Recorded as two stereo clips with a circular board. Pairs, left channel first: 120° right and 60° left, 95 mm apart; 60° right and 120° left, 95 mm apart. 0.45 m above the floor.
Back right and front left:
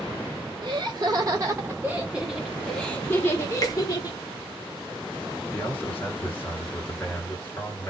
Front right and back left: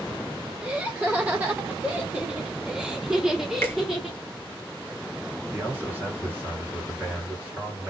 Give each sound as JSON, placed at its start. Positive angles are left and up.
{"t": 0.6, "sound": "laughter", "azimuth_deg": 55, "distance_m": 1.3}
{"t": 3.6, "sound": "a finger snap", "azimuth_deg": -110, "distance_m": 0.9}
{"t": 5.5, "sound": "a man speaking", "azimuth_deg": 180, "distance_m": 1.8}